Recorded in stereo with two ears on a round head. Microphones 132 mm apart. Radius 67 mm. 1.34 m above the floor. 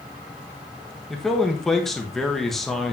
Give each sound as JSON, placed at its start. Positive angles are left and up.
{"t": 1.1, "sound": "a man speaking", "side_deg": 0, "distance_m": 1.5}